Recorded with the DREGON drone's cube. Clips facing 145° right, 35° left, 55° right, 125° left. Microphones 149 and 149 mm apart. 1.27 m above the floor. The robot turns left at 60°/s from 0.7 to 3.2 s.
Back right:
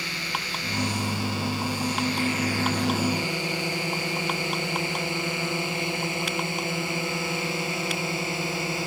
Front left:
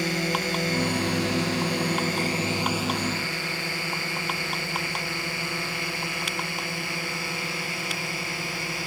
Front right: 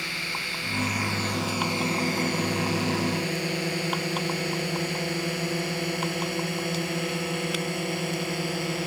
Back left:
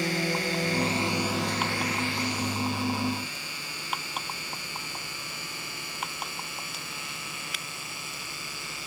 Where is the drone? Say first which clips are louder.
Front left 8 dB, back left 9 dB; 80° left; by 8.9 s 80° right.